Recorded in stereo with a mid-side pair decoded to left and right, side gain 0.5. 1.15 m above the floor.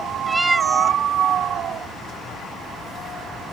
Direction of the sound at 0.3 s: 5° right.